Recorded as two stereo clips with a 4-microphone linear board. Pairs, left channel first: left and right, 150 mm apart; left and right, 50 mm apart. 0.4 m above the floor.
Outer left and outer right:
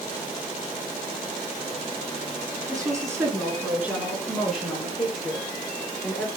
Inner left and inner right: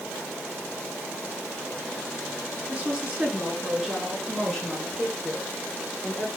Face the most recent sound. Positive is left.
turn(degrees=10)  # may be behind; listen again after turning